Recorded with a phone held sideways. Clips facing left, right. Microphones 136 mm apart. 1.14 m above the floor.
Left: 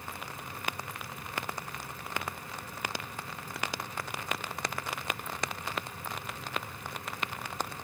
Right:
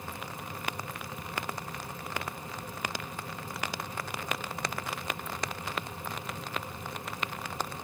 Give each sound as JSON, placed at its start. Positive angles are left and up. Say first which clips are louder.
{"t": 0.0, "sound": "a fan", "louder": "right 2 dB", "side_deg": -20, "distance_m": 0.9}